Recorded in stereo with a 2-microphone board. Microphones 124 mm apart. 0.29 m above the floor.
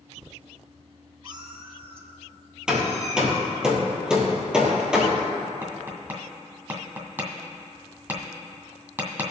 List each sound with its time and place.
1.2 s a cat meowing: 35° right (ahead or behind), 1.1 m; by 3.6 s 75° right (ahead or behind), 2.5 m
2.7 s hammering: 5° right (ahead or behind), 2 m
5.6 s tapping: 20° right (ahead or behind), 1.9 m